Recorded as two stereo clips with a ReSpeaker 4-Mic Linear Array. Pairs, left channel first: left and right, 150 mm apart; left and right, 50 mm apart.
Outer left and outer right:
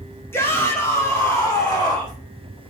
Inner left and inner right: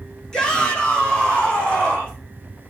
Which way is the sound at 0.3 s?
15° left (ahead or behind).